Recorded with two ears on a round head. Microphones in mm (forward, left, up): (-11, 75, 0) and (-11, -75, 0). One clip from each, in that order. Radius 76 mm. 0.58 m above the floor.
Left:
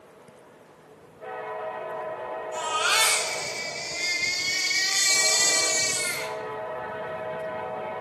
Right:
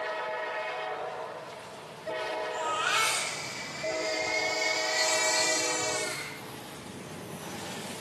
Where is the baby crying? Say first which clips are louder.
Left 5 dB; 60° left (ahead or behind), 3 m.